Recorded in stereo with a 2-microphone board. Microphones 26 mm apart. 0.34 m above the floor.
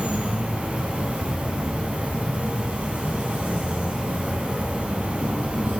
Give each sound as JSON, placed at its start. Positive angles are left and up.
{"t": 0.0, "sound": "an insect", "side_deg": -60, "distance_m": 1.2}